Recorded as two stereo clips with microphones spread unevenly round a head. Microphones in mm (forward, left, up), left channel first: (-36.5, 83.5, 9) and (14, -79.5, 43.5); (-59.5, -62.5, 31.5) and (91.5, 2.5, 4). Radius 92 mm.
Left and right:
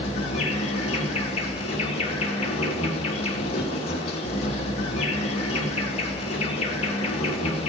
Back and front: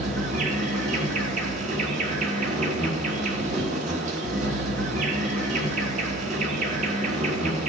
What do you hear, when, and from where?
0.0 s an insect: 50° left, 1.2 m